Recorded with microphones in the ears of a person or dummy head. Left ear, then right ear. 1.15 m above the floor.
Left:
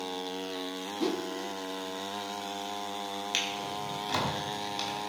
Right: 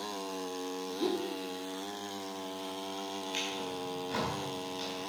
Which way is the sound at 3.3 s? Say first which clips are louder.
Left 5 dB; 35° left (ahead or behind).